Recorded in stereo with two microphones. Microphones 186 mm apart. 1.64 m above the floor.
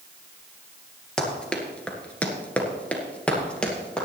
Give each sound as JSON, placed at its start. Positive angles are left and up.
{"t": 1.2, "sound": "running footsteps", "side_deg": 5, "distance_m": 2.0}